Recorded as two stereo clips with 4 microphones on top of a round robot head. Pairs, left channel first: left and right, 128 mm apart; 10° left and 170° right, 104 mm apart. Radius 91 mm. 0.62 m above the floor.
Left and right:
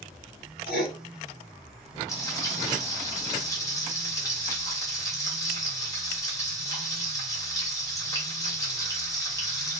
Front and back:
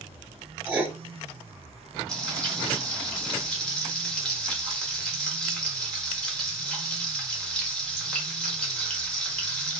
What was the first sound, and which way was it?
Writing, 115° left.